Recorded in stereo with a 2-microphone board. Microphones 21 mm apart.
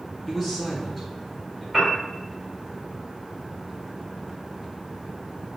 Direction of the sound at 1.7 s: 15° right (ahead or behind).